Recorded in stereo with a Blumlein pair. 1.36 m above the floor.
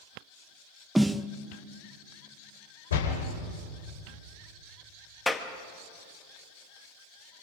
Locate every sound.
0.9 s a snare drum: 5° right, 0.7 m
2.9 s a door slam: 65° left, 4 m
5.3 s a clap: 10° left, 1.6 m